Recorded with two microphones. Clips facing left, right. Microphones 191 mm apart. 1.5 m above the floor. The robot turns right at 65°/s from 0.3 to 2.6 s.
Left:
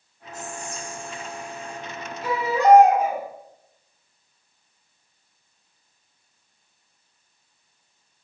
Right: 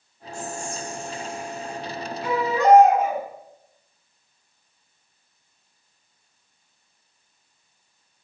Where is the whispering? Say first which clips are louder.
Right 3 dB; 150° right, 1.1 m; by 1.8 s 60° right, 1.1 m.